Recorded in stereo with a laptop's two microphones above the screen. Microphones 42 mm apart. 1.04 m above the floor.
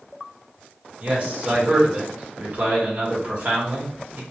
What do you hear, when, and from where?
1.0 s a man speaking: 40° right (ahead or behind), 1.2 m